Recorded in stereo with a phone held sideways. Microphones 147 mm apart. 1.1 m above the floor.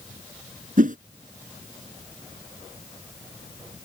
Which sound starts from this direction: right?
A whoosh, at 0.8 s.